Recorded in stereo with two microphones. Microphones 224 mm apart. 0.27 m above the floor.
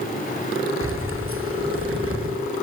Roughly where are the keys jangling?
Right.